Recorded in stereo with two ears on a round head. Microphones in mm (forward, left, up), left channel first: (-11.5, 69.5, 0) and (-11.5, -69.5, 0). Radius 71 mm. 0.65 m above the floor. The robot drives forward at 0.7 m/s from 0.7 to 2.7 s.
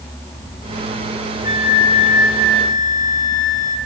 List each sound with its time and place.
1.4 s a flute: 40° left (ahead or behind), 2.5 m; by 3.8 s 55° left (ahead or behind), 1.8 m